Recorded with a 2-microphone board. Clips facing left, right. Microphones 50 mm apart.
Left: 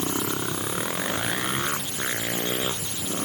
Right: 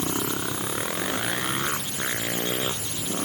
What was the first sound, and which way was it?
Only background noise.